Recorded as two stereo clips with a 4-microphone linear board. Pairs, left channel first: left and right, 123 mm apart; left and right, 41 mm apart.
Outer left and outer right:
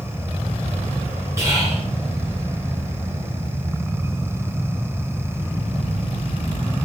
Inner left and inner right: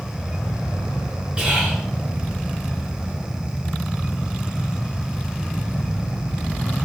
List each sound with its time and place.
1.4 s whispering: 20° right (ahead or behind), 1.4 m